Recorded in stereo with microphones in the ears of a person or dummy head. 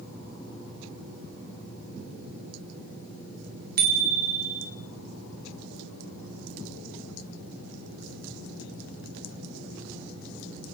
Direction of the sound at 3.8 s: 40° right (ahead or behind).